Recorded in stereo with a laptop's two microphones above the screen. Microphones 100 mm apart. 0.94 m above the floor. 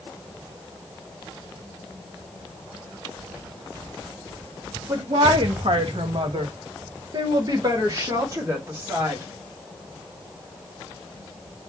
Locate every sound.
4.9 s a woman speaking: 45° right (ahead or behind), 1.0 m; by 9.2 s 25° right (ahead or behind), 2.0 m